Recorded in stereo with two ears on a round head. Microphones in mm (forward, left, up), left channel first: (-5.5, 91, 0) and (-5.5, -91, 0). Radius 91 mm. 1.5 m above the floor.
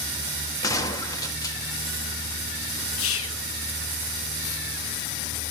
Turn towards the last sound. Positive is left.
turn(degrees=75)  # may be behind; listen again after turning